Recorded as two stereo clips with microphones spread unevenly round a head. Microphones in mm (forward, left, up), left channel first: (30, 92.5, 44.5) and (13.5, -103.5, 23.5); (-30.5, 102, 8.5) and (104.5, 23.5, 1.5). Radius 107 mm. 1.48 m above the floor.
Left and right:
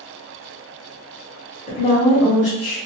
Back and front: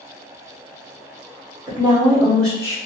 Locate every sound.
1.7 s a woman speaking: 30° left, 0.9 m; by 2.8 s 85° left, 0.8 m